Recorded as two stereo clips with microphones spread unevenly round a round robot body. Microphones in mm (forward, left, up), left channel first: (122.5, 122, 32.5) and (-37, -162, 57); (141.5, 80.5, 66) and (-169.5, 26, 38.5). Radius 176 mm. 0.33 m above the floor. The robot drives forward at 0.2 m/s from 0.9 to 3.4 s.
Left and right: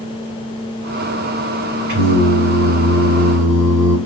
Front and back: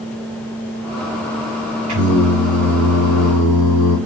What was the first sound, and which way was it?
Singing, 140° right.